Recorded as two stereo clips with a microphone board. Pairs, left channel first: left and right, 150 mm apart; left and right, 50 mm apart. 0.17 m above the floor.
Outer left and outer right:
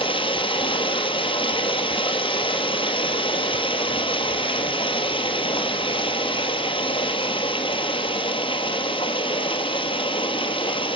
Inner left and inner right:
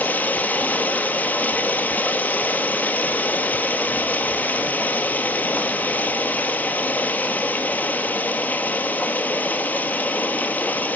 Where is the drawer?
I don't hear a drawer.